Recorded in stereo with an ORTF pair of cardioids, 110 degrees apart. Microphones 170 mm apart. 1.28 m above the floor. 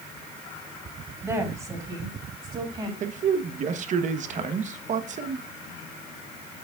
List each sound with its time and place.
1.2 s a woman speaking: 20° right, 3 m; by 2.9 s 30° right, 3.5 m
3.0 s a man speaking: 45° right, 1.1 m